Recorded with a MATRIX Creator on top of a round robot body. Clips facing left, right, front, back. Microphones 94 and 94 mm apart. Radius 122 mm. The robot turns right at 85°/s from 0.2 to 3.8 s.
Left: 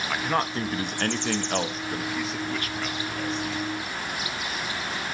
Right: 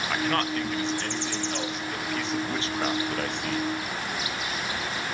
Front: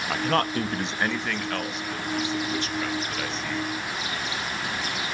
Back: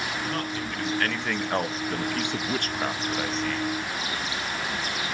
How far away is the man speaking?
About 0.9 m.